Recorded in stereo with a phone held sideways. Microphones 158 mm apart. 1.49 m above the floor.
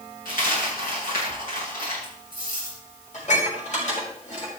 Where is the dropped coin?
85° left, 9.5 m.